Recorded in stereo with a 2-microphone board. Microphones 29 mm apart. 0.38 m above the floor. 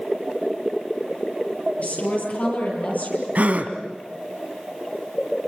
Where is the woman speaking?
65° left (ahead or behind), 10 m; by 3.2 s 75° left (ahead or behind), 10 m.